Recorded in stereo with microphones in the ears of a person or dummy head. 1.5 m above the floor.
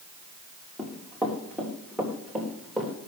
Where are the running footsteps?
5° left (ahead or behind), 3 m; by 2.9 s centre (ahead or behind), 4 m.